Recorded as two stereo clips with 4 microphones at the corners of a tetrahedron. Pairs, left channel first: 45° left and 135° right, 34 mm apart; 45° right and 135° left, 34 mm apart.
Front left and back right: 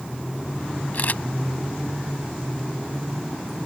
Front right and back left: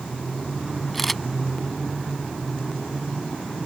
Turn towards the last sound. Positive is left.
turn(degrees=40)